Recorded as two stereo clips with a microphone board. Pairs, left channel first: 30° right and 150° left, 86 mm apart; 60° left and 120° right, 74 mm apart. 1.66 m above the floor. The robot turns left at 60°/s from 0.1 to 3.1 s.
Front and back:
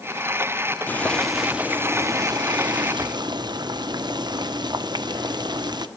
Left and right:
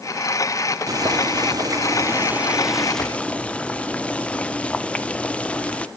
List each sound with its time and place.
0.9 s boiling: 95° right, 0.9 m; by 5.9 s 130° left, 0.9 m